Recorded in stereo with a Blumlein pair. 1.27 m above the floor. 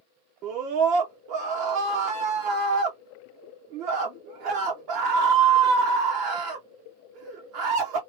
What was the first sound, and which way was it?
A scream, 40° right.